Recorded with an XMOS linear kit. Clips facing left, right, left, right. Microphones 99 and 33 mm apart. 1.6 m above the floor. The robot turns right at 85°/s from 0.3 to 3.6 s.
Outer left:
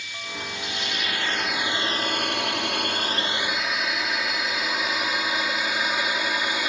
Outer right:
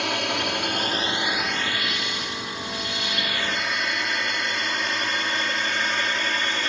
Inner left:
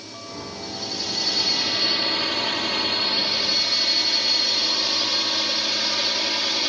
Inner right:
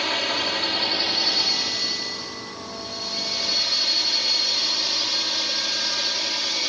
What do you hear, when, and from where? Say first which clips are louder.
0.0 s a drone: outer right 10 dB, inner right 12 dB; 70° right (ahead or behind); by 6.7 s 10° left (ahead or behind)